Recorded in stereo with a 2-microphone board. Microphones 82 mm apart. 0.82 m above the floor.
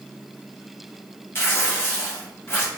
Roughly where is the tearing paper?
Left.